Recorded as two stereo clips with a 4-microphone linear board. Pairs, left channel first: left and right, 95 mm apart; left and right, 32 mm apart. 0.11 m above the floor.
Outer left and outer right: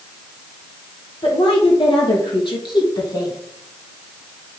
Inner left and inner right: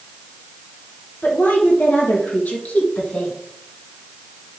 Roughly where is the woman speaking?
Left.